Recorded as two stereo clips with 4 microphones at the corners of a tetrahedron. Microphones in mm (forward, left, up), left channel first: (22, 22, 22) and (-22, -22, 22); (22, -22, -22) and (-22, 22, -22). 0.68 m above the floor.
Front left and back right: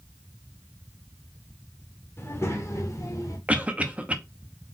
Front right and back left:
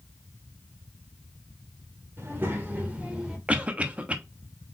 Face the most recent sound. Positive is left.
turn(degrees=180)